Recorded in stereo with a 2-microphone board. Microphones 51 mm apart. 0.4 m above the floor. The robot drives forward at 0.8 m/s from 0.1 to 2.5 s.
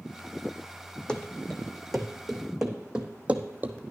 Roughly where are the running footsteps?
Centre.